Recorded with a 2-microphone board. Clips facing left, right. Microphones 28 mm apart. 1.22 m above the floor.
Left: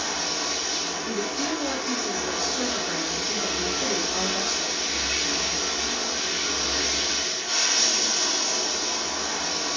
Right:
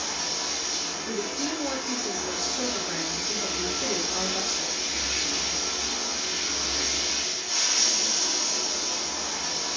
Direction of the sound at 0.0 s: 60° left (ahead or behind).